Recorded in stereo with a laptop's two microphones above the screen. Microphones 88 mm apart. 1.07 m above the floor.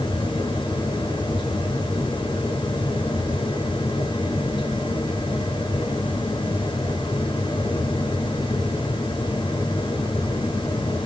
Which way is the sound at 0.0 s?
70° left (ahead or behind).